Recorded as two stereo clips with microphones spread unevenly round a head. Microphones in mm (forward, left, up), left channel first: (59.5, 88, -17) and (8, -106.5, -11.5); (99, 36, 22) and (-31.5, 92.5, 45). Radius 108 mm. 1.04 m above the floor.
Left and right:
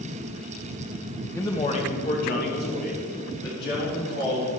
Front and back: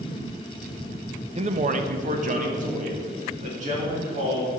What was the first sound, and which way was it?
A man speaking, 145° left.